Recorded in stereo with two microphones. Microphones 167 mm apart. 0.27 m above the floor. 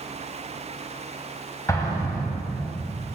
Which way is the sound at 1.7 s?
20° left (ahead or behind).